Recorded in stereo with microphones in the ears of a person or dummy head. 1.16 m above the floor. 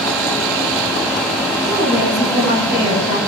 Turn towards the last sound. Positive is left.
turn(degrees=35)  # may be behind; listen again after turning